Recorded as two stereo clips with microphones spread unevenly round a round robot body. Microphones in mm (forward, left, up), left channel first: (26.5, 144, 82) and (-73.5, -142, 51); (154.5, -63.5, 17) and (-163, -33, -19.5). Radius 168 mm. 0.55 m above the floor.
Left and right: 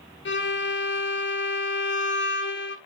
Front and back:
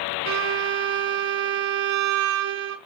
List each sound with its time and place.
0.2 s a violin: 125° left, 1.5 m